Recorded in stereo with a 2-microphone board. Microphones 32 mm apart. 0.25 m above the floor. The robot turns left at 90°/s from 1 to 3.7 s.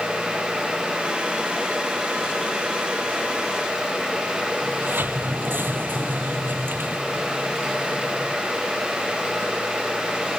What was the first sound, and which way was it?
A sliding door, 80° right.